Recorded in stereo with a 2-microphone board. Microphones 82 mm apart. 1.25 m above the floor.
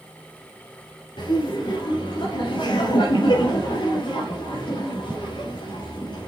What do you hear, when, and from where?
1.2 s laughter: 80° left, 3 m